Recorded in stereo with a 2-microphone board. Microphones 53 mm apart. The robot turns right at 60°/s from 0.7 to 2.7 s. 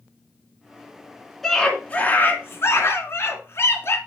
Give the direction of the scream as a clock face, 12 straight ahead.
12 o'clock.